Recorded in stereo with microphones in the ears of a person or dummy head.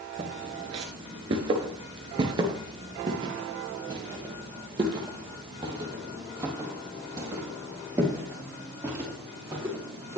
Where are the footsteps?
20° right (ahead or behind), 1.4 m.